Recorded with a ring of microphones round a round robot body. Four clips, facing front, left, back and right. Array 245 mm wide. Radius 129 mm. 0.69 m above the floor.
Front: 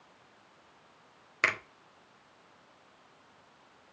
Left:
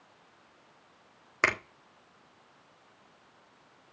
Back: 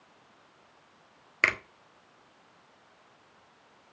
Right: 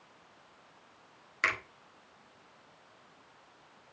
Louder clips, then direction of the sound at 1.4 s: Left 4 dB, back 2 dB; 110° left.